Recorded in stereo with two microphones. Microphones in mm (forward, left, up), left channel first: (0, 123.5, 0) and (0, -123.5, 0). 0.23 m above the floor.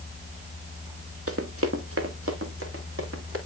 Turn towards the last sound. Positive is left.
turn(degrees=-60)  # may be behind; listen again after turning